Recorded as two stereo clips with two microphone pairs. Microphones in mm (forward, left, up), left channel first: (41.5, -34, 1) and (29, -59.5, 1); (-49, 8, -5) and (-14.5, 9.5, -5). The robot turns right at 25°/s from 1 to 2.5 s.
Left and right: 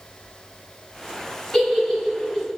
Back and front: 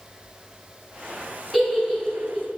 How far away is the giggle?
About 1.4 m.